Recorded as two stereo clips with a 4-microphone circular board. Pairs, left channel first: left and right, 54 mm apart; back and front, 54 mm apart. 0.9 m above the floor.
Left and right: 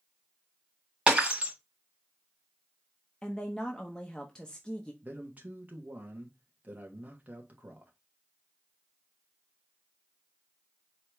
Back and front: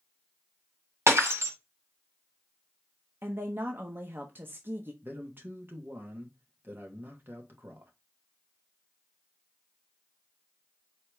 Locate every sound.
1.1 s breaking glass: 25° right, 1.7 m
3.2 s a woman speaking: 20° left, 0.6 m
5.0 s a man speaking: 40° right, 1.0 m